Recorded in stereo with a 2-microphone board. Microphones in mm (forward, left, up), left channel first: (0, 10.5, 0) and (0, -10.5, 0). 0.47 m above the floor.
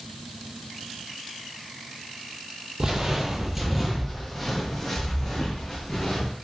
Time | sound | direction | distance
2.8 | footsteps | 30° right (ahead or behind) | 0.5 m